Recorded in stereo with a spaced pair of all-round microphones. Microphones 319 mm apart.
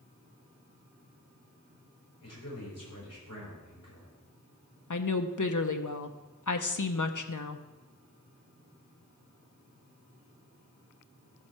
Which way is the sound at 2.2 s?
50° left (ahead or behind).